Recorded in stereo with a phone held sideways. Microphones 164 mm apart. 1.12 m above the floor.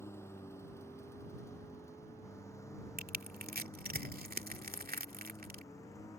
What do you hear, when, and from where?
0.0 s a lawn mower: 15° left (ahead or behind); by 6.2 s 20° left (ahead or behind)
3.0 s crushing: 65° right (ahead or behind)